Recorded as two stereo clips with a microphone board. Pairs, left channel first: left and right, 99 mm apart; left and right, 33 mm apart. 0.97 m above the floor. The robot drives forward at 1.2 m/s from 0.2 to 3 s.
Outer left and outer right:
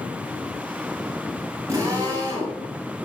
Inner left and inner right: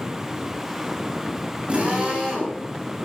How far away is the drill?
About 8 m.